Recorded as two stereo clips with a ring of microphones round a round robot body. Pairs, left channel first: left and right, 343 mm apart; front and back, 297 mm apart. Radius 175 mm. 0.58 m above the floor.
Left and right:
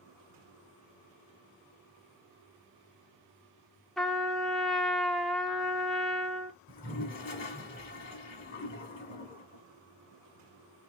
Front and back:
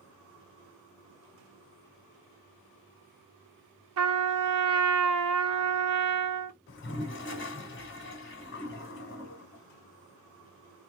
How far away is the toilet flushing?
About 1.7 m.